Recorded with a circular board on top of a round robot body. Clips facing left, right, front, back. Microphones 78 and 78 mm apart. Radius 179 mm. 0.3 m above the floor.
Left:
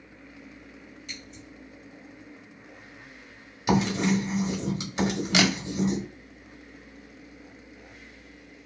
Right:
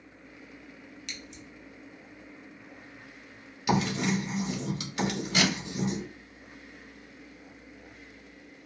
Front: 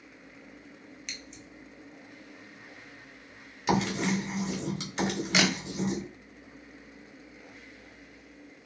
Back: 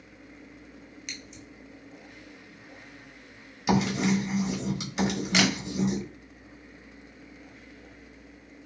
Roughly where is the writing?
Left.